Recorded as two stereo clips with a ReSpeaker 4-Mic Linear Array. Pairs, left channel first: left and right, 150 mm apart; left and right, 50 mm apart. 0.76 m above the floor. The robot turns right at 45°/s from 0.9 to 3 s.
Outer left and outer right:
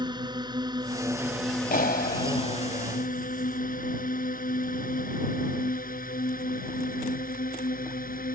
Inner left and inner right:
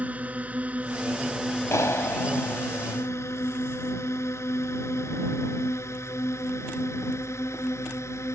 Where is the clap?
80° left; by 2.6 s 120° left.